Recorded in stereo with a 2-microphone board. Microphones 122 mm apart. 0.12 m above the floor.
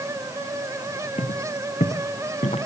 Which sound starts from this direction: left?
Footsteps, at 1.2 s.